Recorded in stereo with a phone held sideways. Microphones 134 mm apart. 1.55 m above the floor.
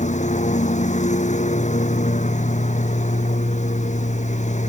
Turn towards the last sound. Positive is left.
turn(degrees=60)  # may be behind; listen again after turning